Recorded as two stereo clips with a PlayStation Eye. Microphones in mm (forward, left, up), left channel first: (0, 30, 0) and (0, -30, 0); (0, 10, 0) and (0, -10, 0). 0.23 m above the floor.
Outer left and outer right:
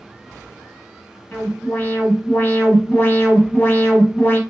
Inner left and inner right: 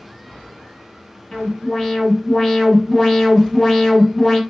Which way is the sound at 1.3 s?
30° left (ahead or behind).